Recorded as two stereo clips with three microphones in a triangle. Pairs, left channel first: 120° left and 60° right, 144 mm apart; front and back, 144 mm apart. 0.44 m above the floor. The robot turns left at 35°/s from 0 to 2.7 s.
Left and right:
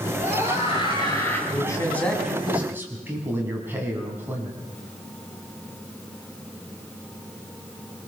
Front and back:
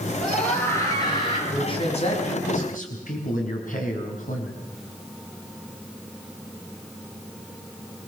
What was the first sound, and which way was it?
A scream, 90° left.